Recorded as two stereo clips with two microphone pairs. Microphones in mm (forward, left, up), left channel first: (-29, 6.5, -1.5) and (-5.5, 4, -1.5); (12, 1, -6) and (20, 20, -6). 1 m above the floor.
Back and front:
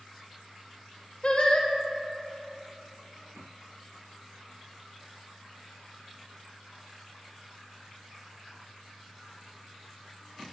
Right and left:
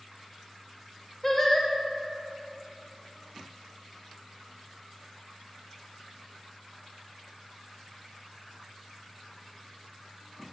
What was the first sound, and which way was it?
Singing, 175° left.